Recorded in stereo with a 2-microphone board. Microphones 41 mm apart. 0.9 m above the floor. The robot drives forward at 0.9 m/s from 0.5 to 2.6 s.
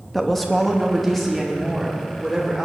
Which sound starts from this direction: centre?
A woman speaking, at 0.1 s.